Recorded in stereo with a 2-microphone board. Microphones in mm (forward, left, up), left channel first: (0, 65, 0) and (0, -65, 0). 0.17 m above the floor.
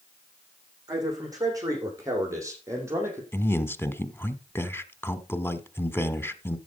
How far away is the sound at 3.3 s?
About 1.2 m.